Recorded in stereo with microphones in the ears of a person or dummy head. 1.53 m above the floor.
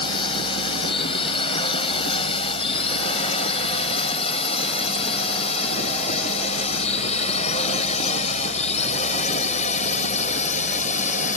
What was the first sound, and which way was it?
A drone, 25° left (ahead or behind).